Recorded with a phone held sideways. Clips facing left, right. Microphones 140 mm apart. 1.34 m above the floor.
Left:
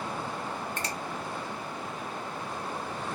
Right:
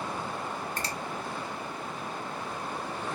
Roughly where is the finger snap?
Right.